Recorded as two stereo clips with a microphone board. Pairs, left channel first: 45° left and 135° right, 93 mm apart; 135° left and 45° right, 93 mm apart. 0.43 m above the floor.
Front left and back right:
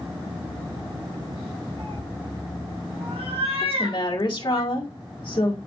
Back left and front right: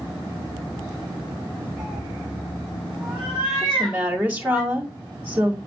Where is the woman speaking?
20° left, 1.9 m.